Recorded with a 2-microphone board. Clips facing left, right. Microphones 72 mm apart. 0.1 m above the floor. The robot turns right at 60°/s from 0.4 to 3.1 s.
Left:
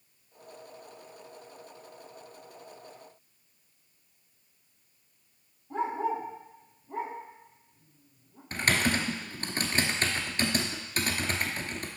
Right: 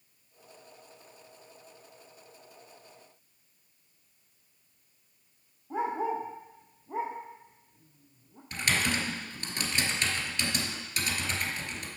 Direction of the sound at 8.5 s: 40° left (ahead or behind).